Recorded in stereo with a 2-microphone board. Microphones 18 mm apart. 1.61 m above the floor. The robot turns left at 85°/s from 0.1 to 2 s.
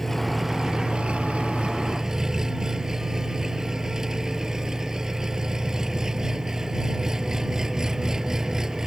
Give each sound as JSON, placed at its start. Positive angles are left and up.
{"t": 0.0, "sound": "an engine running", "azimuth_deg": 15}